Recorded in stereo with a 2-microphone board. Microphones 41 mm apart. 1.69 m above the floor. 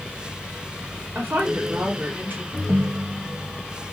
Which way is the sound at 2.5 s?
50° right (ahead or behind).